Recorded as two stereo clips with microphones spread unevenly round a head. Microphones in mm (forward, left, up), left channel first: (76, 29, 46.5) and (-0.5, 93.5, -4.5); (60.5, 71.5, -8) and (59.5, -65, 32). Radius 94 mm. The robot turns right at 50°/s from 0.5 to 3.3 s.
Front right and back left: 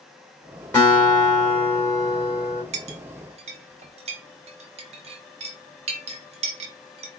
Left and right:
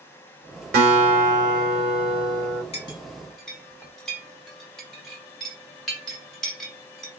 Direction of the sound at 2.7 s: 150° left.